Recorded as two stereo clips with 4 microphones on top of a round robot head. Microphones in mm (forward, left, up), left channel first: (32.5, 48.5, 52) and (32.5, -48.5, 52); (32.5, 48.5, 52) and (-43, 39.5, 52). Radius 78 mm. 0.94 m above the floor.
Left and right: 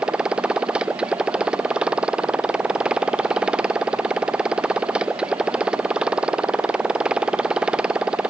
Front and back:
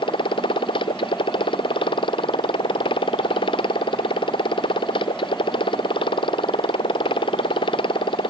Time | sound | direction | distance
0.0 | a motorcycle | 10° right | ?